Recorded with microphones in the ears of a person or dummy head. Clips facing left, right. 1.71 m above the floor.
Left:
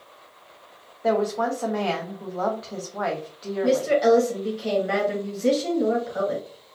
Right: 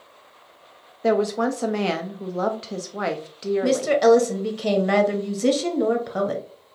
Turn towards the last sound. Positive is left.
turn(degrees=-80)